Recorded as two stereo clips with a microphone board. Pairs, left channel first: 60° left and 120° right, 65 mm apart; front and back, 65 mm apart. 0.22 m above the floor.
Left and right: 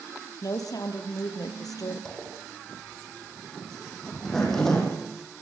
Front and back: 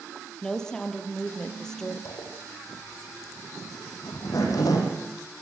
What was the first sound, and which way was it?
A woman speaking, 80° left.